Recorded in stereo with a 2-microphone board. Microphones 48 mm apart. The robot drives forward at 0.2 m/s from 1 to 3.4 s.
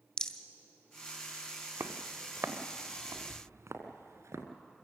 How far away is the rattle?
About 1.6 m.